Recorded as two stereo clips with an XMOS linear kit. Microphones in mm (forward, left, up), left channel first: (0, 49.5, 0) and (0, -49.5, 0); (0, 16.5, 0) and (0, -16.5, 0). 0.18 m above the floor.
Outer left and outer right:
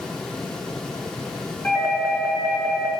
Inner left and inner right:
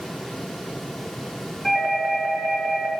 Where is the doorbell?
20° left (ahead or behind), 3 m.